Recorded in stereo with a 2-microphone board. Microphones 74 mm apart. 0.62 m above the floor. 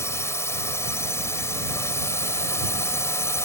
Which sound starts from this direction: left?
A drone, at 0.0 s.